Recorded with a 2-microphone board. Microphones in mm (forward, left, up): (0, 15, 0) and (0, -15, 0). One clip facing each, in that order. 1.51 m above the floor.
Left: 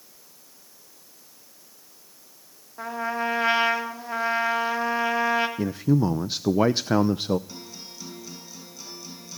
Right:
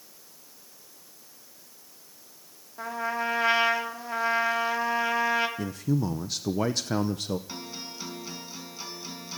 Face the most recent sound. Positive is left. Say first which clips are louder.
# right 3 dB
turn(degrees=-30)  # may be behind; listen again after turning